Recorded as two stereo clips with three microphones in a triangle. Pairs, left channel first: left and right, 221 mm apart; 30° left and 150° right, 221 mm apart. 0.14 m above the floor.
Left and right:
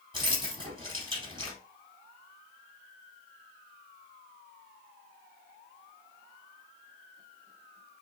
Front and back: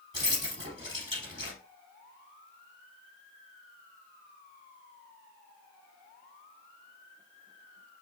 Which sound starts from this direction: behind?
Keys jangling, at 0.1 s.